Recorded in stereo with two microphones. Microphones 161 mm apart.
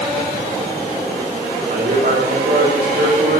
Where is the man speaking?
85° right, 4 m.